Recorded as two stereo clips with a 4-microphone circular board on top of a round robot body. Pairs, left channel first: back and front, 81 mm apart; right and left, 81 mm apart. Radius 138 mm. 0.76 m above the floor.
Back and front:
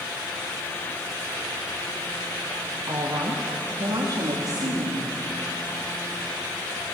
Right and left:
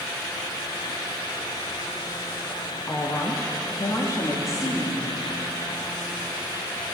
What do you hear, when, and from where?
2.9 s a woman speaking: 40° right, 1.3 m